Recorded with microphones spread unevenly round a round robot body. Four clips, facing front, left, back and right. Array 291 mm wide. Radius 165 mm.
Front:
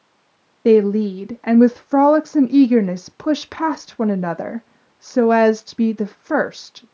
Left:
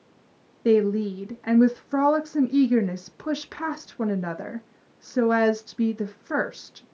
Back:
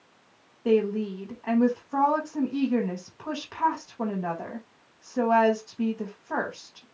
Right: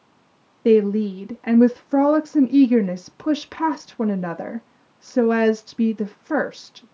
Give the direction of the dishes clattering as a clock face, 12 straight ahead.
No dishes clattering in this recording.